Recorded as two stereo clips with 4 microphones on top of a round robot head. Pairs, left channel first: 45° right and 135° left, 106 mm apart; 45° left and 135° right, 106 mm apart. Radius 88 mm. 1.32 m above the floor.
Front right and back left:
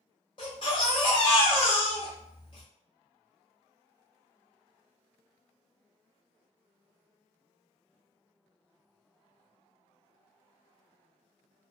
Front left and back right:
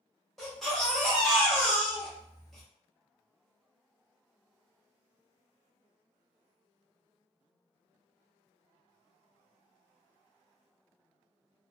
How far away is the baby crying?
About 0.5 m.